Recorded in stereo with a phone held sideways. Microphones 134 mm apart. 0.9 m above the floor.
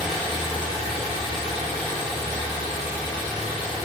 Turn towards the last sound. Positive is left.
turn(degrees=-80)